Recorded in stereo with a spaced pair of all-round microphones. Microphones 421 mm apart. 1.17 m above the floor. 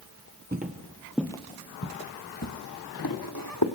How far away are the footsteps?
About 1.2 m.